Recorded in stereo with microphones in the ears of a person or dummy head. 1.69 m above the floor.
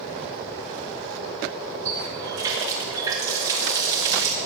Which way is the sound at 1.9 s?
25° right (ahead or behind).